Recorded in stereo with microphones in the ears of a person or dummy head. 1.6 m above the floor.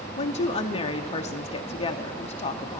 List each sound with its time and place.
0.2 s a woman speaking: 35° left (ahead or behind), 0.7 m